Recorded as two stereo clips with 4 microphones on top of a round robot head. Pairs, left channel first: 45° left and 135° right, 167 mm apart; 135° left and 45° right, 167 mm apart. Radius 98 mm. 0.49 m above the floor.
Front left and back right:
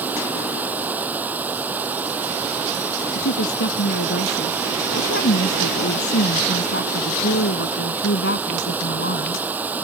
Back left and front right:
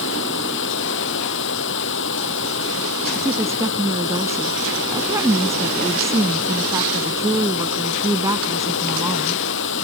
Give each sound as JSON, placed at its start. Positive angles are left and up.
{"t": 0.0, "sound": "running water", "azimuth_deg": 145}
{"t": 3.1, "sound": "a woman speaking", "azimuth_deg": 25}